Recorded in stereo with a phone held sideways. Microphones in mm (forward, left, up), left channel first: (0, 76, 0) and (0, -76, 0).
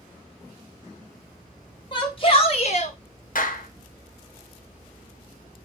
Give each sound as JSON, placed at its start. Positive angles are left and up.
{"t": 1.9, "sound": "a shout", "side_deg": 35, "distance_m": 2.0}
{"t": 3.4, "sound": "a clap", "side_deg": 65, "distance_m": 1.1}